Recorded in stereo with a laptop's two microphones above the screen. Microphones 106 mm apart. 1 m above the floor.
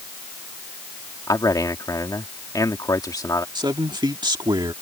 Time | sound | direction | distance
1.3 | a man speaking | 35° left (ahead or behind) | ?
3.5 | a man speaking | 45° right (ahead or behind) | ?